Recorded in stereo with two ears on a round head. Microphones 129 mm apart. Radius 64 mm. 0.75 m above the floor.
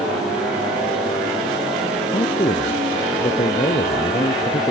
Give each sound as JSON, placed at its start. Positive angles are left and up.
{"t": 2.1, "sound": "a man speaking", "side_deg": 35}